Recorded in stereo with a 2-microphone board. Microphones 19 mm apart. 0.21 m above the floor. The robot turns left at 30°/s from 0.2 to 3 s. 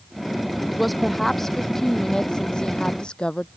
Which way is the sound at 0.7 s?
175° right.